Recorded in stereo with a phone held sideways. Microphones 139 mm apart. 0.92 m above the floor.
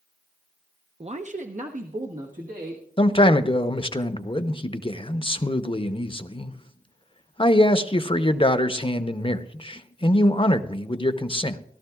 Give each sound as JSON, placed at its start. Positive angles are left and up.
{"t": 1.0, "sound": "a man speaking", "side_deg": -45, "distance_m": 0.5}
{"t": 3.0, "sound": "a man speaking", "side_deg": 40, "distance_m": 0.7}